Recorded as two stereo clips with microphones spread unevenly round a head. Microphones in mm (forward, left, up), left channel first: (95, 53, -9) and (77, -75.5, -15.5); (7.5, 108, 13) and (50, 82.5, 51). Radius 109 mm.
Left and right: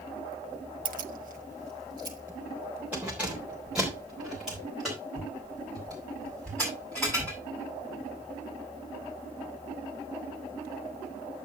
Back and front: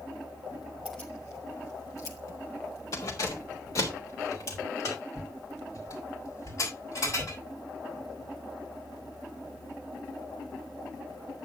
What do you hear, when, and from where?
0.8 s keys jangling: 100° right, 0.6 m; by 7.4 s 170° left, 7 m